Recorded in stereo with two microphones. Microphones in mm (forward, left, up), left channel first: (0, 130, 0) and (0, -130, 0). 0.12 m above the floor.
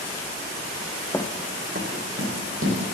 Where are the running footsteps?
10° left (ahead or behind), 0.7 m; by 2.8 s 55° right (ahead or behind), 3 m.